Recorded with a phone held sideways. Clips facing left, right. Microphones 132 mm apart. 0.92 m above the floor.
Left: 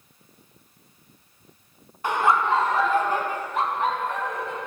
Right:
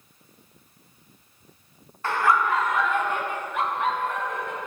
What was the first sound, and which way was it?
Laughter, 15° left (ahead or behind).